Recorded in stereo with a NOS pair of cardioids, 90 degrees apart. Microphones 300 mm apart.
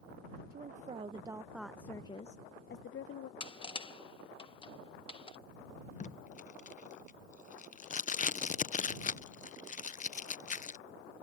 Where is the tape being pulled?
25° left.